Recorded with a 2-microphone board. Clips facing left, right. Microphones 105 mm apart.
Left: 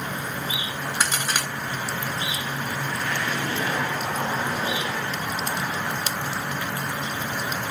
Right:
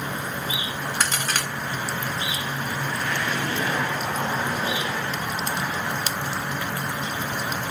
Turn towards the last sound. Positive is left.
turn(degrees=10)  # may be behind; listen again after turning